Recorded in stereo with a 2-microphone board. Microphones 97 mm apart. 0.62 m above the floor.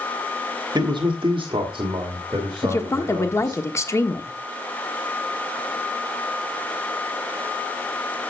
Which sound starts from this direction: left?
A woman speaking, at 2.6 s.